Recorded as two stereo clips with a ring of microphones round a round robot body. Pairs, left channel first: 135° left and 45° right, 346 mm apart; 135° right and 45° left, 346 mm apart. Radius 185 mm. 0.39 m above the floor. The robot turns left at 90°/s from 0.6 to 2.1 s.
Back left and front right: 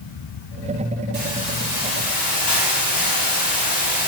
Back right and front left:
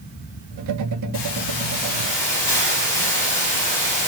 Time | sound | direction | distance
1.1 | a hiss | 105° right | 9.5 m